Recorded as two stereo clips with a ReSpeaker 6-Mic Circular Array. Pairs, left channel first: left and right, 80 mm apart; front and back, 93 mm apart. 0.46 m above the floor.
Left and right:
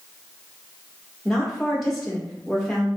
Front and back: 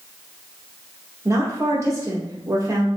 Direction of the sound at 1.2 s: 175° left.